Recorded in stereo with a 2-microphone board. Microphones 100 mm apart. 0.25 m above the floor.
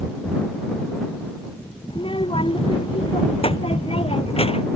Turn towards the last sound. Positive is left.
turn(degrees=75)  # may be behind; listen again after turning